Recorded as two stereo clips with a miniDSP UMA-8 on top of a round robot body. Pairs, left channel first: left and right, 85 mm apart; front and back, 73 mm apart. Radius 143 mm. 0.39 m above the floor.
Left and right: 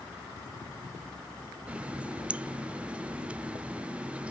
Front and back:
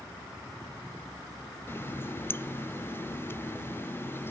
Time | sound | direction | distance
1.7 | a running tap | 25° right | 0.7 m